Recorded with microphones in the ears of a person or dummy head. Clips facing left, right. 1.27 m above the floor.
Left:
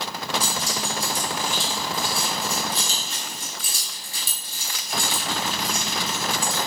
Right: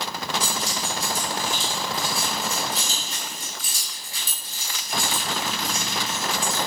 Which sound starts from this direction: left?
Keys jangling, at 0.4 s.